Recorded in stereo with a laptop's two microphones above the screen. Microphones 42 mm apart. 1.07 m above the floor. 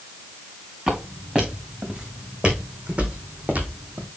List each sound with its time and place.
0.9 s footsteps: 20° right (ahead or behind), 5.5 m; by 4.1 s 50° right (ahead or behind), 2.5 m